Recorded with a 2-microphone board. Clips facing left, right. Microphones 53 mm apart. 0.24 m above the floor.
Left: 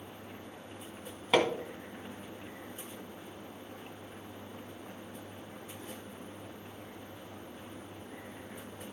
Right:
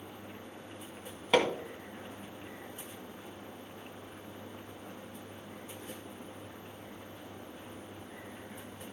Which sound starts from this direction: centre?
Hammering, at 1.3 s.